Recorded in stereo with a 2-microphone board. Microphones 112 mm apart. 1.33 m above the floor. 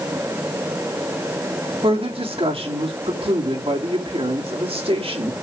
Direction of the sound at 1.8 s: 60° right (ahead or behind).